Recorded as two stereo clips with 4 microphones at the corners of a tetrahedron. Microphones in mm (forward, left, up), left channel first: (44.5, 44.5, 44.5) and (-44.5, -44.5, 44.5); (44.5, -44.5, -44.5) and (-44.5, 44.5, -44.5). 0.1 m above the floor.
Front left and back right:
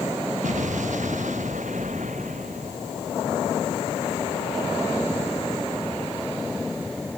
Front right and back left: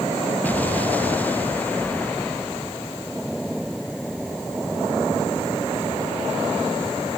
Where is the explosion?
125° right.